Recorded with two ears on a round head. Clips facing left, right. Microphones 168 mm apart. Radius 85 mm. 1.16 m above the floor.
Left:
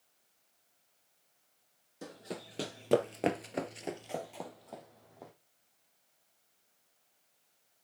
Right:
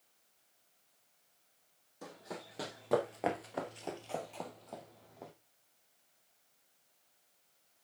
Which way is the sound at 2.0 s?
25° left (ahead or behind).